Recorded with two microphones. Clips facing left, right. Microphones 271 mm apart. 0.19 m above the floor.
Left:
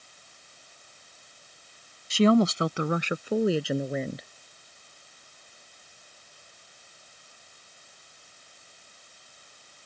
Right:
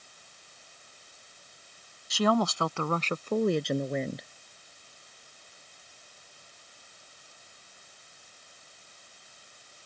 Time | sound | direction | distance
2.1 | a woman speaking | 30° left (ahead or behind) | ?